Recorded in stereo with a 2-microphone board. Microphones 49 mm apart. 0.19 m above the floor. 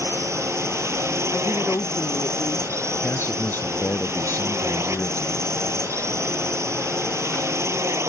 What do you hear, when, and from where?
0.0 s a drone: 70° right (ahead or behind)
1.3 s a woman speaking: 70° left (ahead or behind)
3.0 s a man speaking: 50° left (ahead or behind)